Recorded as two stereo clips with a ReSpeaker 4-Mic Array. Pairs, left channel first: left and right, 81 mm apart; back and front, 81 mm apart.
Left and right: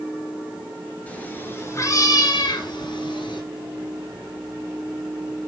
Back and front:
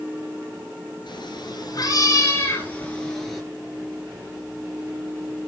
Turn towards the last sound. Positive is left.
turn(degrees=90)